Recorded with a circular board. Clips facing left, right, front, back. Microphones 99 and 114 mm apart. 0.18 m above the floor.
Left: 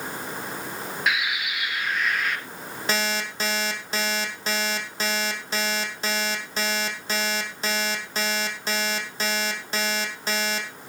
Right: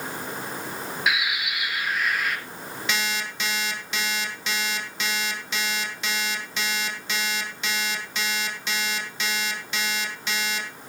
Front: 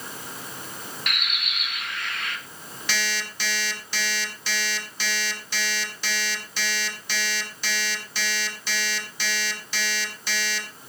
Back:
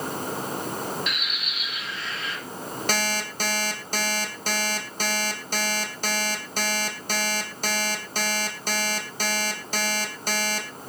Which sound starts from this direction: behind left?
An alarm clock, at 2.9 s.